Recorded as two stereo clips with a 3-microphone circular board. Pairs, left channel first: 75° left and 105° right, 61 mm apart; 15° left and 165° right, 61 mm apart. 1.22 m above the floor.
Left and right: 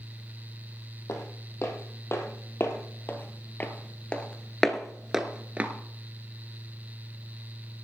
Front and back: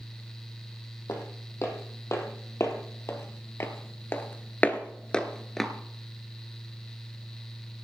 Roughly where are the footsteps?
Ahead left.